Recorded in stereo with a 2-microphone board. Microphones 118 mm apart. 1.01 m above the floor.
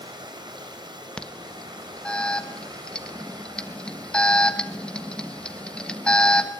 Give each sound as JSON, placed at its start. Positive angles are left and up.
{"t": 0.0, "sound": "running water", "side_deg": -40, "distance_m": 4.0}
{"t": 1.2, "sound": "an alarm", "side_deg": 10, "distance_m": 1.4}